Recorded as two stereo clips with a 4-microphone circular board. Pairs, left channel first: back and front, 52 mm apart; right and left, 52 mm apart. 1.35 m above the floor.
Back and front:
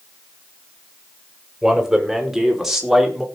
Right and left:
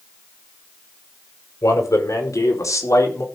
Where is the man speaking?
85° right, 4.5 m.